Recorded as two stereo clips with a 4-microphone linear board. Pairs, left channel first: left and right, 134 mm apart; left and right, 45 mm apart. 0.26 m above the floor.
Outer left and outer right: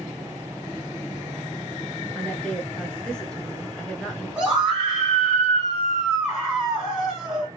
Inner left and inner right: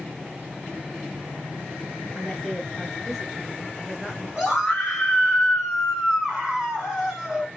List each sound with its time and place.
2.1 s a woman speaking: 5° left (ahead or behind), 0.9 m
4.4 s a scream: 5° right (ahead or behind), 2.0 m